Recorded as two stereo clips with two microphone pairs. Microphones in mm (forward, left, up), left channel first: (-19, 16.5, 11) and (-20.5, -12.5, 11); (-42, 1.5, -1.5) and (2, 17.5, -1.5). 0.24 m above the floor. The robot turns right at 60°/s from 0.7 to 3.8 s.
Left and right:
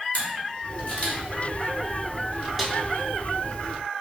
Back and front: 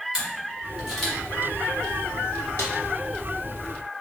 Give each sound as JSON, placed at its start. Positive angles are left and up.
{"t": 0.1, "sound": "a camera shutter", "azimuth_deg": 90, "distance_m": 1.2}
{"t": 2.6, "sound": "a snare drum", "azimuth_deg": -175, "distance_m": 0.6}